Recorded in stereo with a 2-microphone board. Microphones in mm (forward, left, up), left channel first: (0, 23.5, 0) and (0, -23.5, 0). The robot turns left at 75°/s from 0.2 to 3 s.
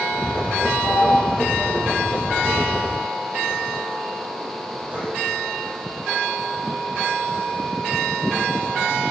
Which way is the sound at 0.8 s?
5° left (ahead or behind).